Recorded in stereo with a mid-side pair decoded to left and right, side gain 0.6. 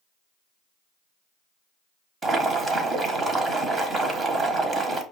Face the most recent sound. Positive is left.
turn(degrees=-30)